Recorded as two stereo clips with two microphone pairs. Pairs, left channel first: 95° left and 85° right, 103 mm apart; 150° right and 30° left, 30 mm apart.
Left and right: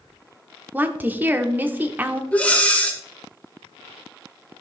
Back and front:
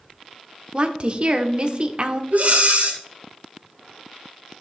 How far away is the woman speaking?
About 1.0 m.